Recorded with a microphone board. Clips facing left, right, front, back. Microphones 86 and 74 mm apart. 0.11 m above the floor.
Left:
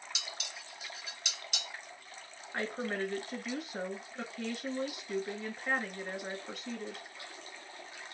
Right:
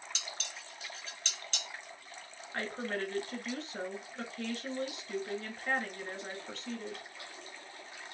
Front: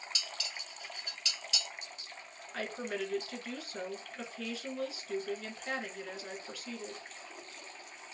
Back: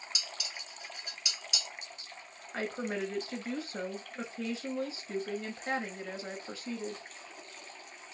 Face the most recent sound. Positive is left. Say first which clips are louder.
# left 1 dB, back 2 dB
turn(degrees=160)